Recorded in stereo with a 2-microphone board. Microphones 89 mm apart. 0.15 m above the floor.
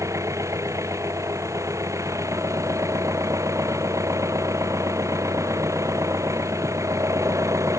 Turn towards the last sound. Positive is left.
turn(degrees=-35)  # may be behind; listen again after turning